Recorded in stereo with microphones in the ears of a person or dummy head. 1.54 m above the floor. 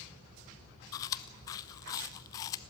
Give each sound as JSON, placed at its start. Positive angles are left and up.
{"t": 0.9, "sound": "chewing", "side_deg": 25, "distance_m": 0.5}